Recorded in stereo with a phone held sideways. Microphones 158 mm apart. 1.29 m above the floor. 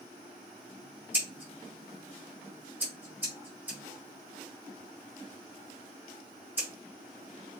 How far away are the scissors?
About 2.5 m.